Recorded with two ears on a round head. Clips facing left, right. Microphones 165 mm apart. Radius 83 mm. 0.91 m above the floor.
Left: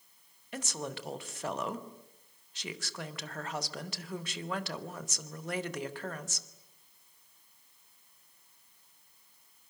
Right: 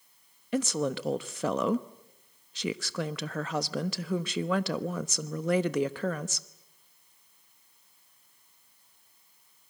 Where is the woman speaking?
60° right (ahead or behind), 1.0 m.